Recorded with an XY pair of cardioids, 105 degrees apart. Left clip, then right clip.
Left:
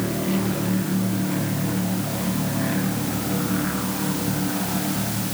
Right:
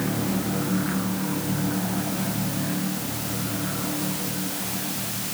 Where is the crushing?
No crushing in this recording.